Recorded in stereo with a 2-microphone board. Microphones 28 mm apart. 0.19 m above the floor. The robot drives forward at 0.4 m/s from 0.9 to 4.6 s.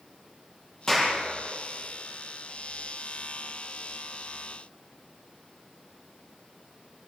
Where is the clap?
20° left (ahead or behind), 6 m.